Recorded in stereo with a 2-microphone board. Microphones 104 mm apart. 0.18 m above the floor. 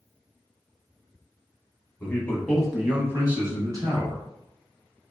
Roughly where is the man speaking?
Left.